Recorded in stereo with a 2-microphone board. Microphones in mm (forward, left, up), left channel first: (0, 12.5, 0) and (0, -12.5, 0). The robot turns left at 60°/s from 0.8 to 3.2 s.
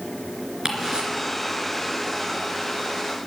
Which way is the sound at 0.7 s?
25° right (ahead or behind).